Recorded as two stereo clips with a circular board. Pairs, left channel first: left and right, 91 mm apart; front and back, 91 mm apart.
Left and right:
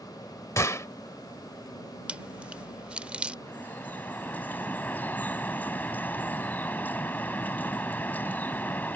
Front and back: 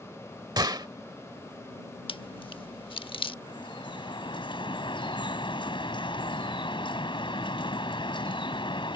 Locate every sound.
0.6 s a gunshot: 145° left
2.1 s chewing: 15° right
3.5 s dripping: 20° left